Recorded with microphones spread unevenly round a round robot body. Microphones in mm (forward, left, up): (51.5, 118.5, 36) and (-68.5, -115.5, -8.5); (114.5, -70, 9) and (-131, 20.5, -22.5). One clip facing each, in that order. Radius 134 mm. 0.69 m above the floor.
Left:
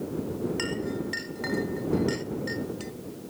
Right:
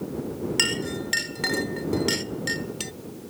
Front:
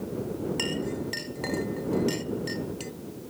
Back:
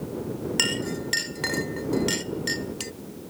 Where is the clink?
140° right.